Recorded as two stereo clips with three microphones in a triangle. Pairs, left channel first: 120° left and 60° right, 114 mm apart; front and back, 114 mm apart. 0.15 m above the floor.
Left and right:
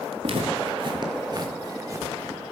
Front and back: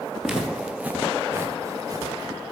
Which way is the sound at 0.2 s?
95° right.